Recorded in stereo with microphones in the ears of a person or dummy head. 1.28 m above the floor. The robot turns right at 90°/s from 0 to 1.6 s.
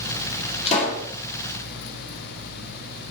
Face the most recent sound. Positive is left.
turn(degrees=120)